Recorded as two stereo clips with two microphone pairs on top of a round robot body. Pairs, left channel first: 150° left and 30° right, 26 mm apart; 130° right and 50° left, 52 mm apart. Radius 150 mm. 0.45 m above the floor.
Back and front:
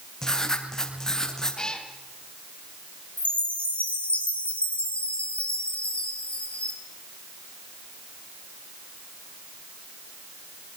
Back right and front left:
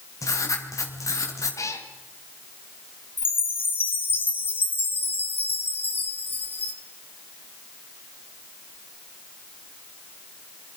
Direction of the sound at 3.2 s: Straight behind.